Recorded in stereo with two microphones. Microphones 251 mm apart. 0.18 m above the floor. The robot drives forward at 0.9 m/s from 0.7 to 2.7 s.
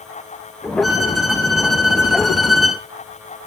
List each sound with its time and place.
0.8 s a violin: centre (ahead or behind), 2.5 m